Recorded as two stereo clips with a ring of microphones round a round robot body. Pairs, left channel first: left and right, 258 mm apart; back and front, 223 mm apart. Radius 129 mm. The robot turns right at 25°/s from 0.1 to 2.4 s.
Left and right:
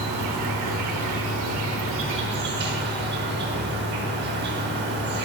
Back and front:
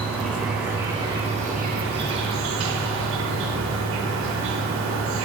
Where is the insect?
95° right, 0.8 m; by 5.2 s 40° right, 0.8 m.